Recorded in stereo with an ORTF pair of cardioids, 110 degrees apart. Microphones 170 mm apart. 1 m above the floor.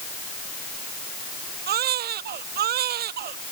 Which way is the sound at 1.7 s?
65° right.